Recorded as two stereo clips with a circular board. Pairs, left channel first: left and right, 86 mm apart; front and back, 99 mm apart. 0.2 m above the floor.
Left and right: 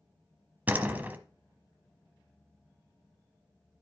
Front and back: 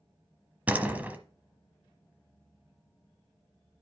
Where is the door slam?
130° right, 1.0 m.